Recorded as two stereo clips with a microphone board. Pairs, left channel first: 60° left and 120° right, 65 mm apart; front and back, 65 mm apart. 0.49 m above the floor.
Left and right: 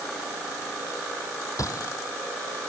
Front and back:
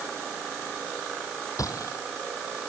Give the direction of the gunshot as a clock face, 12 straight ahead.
11 o'clock.